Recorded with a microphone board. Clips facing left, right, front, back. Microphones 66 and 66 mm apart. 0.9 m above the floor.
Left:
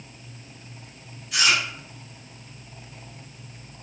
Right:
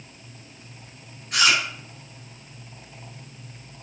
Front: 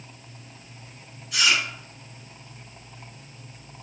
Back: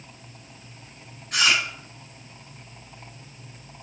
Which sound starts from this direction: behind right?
Chewing, at 1.3 s.